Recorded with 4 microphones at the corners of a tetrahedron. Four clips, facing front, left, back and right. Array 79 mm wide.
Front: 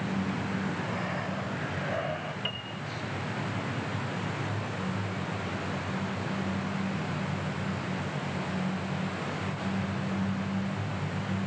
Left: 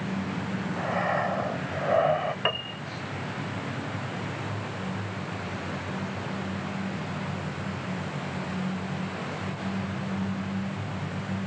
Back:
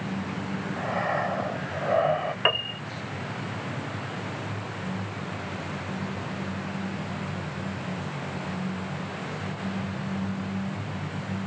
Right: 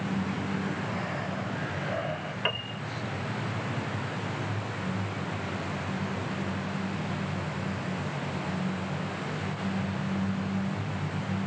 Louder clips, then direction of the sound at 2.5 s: Left 3 dB, back 10 dB; 160° left.